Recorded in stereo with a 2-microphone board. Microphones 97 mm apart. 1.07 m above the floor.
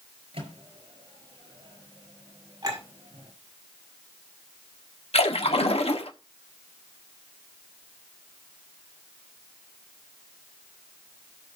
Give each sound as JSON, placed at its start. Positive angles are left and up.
{"t": 0.3, "sound": "a microwave", "side_deg": -65, "distance_m": 4.5}
{"t": 2.6, "sound": "a clink", "side_deg": -35, "distance_m": 6.0}
{"t": 5.1, "sound": "a splash", "side_deg": 75, "distance_m": 1.5}